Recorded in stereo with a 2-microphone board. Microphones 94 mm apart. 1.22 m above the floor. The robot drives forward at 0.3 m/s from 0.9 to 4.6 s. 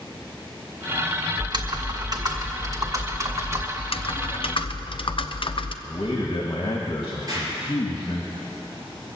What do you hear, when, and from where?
1.4 s typing on a keyboard: 50° right (ahead or behind), 1.0 m; by 3.7 s 30° right (ahead or behind), 1.6 m
3.8 s typing on a keyboard: 75° left (ahead or behind), 0.6 m; by 5.7 s 60° left (ahead or behind), 0.6 m
5.8 s a man speaking: 55° left (ahead or behind), 1.7 m
7.3 s an explosion: 40° right (ahead or behind), 5 m